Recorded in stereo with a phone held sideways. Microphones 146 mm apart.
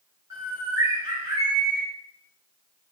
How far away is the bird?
About 1.2 m.